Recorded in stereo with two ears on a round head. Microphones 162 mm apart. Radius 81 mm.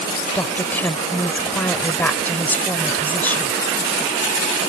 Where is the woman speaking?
10° left (ahead or behind).